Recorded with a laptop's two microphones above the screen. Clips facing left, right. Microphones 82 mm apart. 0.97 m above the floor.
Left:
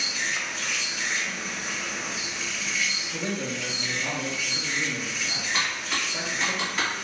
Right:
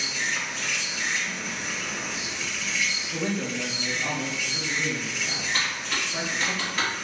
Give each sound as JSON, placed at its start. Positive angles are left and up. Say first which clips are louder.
{"t": 0.0, "sound": "an insect", "louder": "right 1 dB", "side_deg": 5, "distance_m": 1.4}
{"t": 3.1, "sound": "a man speaking", "louder": "right 3 dB", "side_deg": -25, "distance_m": 0.8}
{"t": 5.5, "sound": "typing on a keyboard", "louder": "left 1 dB", "side_deg": 0, "distance_m": 1.3}